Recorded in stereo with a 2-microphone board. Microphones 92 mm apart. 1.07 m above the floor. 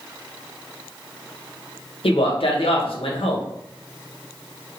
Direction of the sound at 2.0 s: 80° left.